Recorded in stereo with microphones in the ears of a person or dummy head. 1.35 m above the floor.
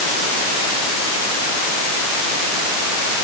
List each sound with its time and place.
Only background noise.